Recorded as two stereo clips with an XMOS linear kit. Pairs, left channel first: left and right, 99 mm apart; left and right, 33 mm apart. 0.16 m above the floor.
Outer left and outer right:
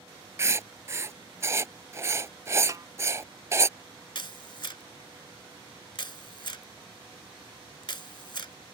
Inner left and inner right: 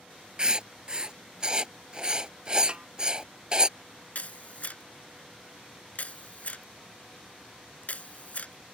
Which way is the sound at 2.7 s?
35° right (ahead or behind).